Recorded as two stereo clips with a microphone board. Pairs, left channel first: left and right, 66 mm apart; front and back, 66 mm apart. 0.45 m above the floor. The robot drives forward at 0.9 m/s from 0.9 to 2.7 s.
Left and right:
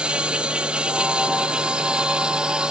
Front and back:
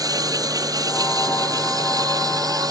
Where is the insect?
165° right.